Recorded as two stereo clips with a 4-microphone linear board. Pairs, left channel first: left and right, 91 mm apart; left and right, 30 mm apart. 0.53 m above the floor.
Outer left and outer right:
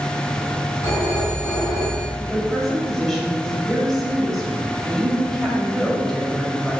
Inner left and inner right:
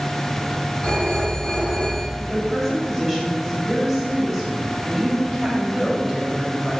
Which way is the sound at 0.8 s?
40° left (ahead or behind).